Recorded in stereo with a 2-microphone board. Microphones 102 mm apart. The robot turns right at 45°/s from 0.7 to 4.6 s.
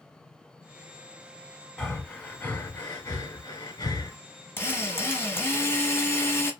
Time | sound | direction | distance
1.8 | breathing | centre (ahead or behind) | 1.0 m
4.6 | a drill | 20° left (ahead or behind) | 0.8 m